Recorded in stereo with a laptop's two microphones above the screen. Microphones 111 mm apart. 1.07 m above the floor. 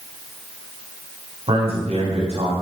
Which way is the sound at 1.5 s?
60° right (ahead or behind).